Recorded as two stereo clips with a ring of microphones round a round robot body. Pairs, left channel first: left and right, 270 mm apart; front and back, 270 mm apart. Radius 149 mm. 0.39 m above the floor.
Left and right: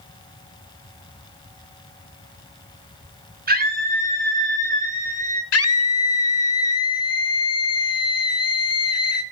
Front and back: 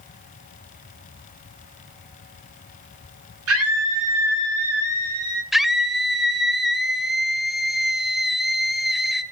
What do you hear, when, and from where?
3.5 s a scream: 145° right, 6 m; by 5.4 s 150° right, 5 m
5.5 s a scream: 90° left, 1.3 m